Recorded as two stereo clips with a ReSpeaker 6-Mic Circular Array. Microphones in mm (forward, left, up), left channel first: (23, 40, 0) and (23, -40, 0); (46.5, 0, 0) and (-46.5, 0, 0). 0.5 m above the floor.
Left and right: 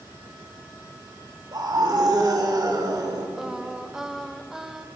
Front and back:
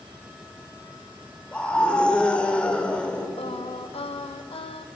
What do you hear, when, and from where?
1.5 s a scream: 75° right, 1.4 m
3.4 s singing: 5° right, 0.5 m